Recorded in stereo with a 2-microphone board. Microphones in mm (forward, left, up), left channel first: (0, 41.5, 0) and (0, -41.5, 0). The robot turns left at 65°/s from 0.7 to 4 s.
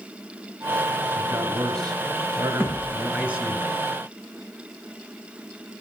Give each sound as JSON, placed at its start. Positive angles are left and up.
{"t": 1.2, "sound": "a man speaking", "azimuth_deg": -25, "distance_m": 2.5}
{"t": 2.6, "sound": "a thud", "side_deg": -25, "distance_m": 3.5}